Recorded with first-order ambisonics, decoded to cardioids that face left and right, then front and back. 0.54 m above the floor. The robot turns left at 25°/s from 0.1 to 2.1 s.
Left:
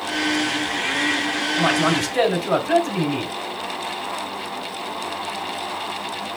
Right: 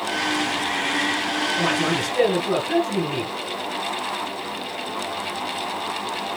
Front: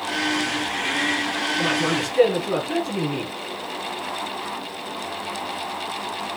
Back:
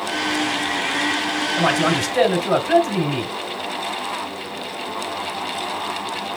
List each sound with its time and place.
1.6 s a man speaking: 155° left, 3 m; by 3.3 s 145° left, 3 m